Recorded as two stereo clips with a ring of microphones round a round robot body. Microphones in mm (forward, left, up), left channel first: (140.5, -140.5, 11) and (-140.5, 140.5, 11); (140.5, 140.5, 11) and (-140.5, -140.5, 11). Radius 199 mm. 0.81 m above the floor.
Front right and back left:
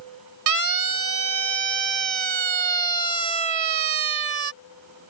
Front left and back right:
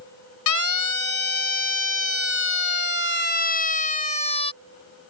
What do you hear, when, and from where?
0.5 s a siren: 90° left; by 4.5 s 120° left